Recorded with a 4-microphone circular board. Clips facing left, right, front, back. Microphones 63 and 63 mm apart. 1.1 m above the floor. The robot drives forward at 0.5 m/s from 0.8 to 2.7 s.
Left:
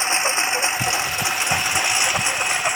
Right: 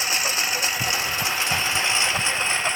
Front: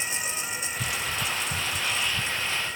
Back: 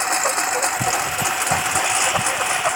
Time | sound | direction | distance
0.0 | a lawn mower | 155° left | ?